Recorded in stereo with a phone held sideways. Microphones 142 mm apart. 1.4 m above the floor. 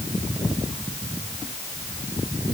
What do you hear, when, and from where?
Only background noise.